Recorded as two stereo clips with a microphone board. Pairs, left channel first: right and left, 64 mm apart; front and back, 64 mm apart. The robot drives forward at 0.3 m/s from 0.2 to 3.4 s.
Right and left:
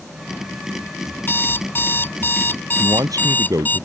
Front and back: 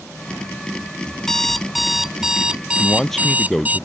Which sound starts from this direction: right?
An alarm clock, at 1.2 s.